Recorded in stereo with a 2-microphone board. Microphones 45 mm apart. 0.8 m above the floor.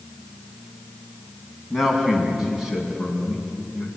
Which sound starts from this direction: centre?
A man speaking, at 1.7 s.